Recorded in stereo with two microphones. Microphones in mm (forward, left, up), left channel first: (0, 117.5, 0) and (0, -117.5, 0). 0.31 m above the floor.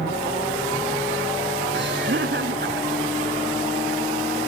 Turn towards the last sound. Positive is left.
turn(degrees=-50)  # may be behind; listen again after turning